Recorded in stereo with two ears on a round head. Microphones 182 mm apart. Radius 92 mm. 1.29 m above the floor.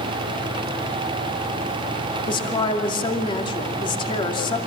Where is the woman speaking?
25° left (ahead or behind), 2.5 m.